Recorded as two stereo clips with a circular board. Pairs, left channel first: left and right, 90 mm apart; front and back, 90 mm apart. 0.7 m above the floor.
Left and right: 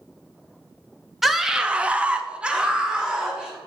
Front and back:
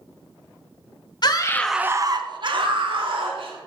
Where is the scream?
5° right, 0.7 m; by 3.6 s 170° right, 2.5 m.